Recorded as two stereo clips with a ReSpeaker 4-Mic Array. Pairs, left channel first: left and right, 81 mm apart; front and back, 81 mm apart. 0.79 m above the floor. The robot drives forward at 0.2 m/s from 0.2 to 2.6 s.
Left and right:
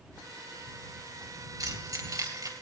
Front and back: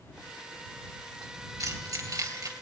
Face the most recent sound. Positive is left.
turn(degrees=-140)